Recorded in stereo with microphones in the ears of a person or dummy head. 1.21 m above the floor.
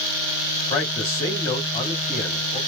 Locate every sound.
0.7 s a man speaking: 20° left (ahead or behind), 1.7 m